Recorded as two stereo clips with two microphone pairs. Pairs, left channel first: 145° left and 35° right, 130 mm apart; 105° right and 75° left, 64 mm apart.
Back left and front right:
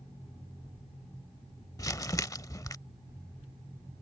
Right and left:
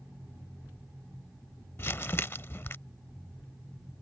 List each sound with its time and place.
1.8 s crumpling: 150° right